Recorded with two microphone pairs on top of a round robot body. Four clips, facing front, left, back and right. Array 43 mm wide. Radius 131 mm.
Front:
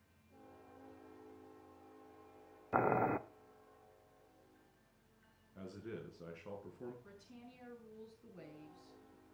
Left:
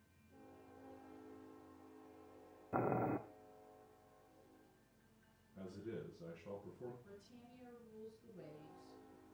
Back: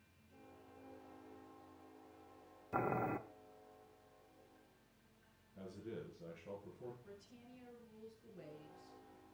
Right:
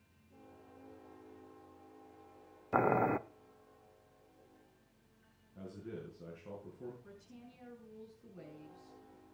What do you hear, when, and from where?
2.7 s boiling: 80° right, 0.6 m
5.5 s a man speaking: straight ahead, 6 m
7.0 s a woman speaking: 30° right, 6 m